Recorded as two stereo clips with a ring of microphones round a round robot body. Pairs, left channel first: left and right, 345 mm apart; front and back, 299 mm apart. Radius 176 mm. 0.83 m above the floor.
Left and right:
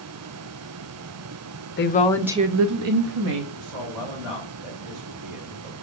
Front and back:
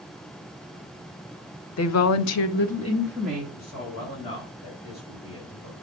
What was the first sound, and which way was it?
A woman speaking, 35° left.